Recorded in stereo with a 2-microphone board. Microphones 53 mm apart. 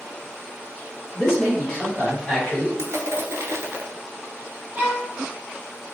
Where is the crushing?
65° right (ahead or behind), 0.6 m.